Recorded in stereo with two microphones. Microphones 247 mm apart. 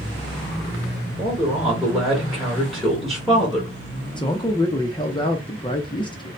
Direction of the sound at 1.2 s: Centre (ahead or behind).